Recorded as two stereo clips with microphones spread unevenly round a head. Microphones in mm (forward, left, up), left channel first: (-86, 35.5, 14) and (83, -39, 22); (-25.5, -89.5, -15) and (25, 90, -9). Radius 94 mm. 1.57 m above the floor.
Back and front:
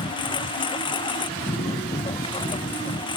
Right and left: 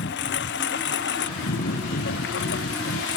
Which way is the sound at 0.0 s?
140° right.